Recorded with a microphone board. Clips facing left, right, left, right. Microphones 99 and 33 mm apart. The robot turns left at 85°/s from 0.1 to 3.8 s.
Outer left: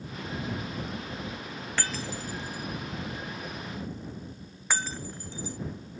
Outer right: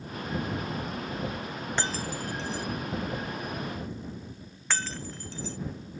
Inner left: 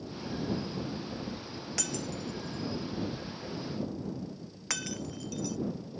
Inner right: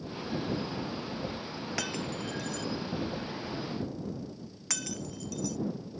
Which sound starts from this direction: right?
Breaking glass, at 1.8 s.